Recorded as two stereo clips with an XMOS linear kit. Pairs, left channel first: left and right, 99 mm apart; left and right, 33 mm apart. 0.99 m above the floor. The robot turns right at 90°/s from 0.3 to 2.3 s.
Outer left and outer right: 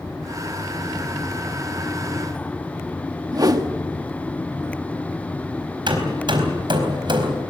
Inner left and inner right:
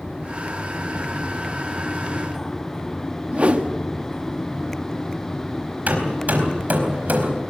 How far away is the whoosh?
About 1.5 m.